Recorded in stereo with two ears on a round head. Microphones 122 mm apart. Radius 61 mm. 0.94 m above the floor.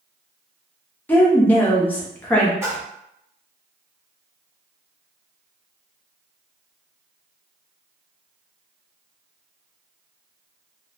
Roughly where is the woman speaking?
Centre.